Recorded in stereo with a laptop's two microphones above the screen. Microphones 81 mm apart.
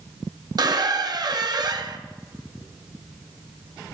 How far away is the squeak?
About 0.6 m.